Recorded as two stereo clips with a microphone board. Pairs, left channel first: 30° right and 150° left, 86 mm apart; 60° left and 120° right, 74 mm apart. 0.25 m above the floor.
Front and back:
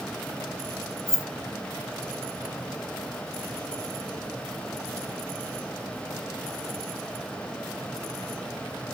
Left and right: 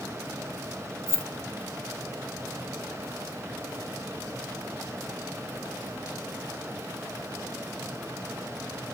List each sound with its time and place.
1.1 s keys jangling: 75° right, 1.1 m